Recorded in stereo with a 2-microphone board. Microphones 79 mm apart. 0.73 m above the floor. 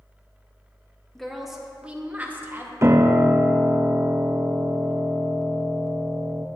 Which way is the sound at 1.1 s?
5° left (ahead or behind).